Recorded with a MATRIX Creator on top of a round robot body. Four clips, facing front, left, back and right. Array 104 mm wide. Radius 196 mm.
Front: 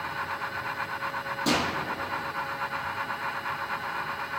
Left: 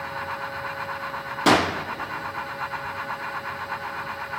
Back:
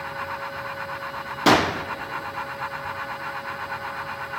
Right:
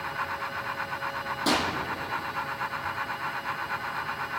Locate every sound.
1.5 s a gunshot: 140° left, 0.5 m